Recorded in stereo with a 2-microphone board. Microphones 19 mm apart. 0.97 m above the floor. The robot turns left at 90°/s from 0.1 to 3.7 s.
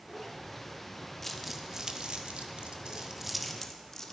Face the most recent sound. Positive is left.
turn(degrees=25)  # may be behind; listen again after turning